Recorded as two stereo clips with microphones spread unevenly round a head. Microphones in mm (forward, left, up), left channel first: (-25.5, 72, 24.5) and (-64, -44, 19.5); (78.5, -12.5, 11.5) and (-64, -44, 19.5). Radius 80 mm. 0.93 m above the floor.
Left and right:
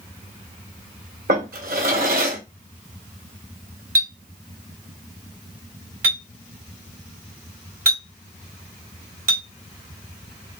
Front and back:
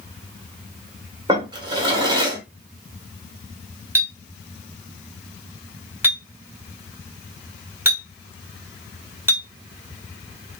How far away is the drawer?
About 1.7 m.